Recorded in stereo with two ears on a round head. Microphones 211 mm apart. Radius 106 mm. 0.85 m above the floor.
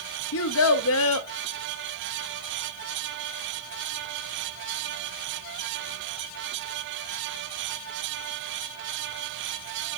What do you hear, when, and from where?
0.3 s a child speaking: 65° left (ahead or behind), 0.7 m